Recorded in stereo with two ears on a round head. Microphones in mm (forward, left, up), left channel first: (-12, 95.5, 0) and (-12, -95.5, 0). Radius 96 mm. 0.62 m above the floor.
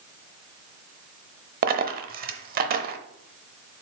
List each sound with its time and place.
1.6 s a dropped coin: 45° right (ahead or behind), 0.8 m